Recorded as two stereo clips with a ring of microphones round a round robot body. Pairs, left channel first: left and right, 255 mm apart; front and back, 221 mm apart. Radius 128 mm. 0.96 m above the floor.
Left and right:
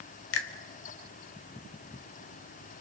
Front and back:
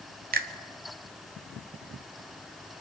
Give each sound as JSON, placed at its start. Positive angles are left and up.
{"t": 0.3, "sound": "a finger snap", "azimuth_deg": 130, "distance_m": 1.7}